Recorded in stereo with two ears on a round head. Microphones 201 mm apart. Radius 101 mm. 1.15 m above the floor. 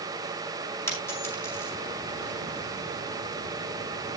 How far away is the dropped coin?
About 5.5 m.